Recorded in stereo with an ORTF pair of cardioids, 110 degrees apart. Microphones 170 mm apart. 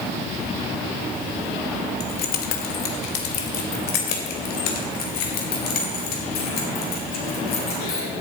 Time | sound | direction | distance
2.0 | keys jangling | 65° left | 1.8 m